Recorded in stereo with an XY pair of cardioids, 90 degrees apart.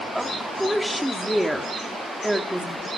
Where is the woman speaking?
5° right, 3.5 m.